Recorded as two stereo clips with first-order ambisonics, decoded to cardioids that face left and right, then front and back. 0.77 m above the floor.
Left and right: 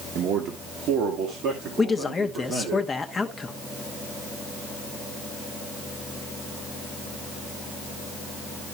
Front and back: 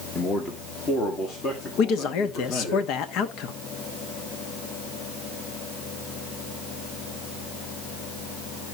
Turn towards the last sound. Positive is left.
turn(degrees=20)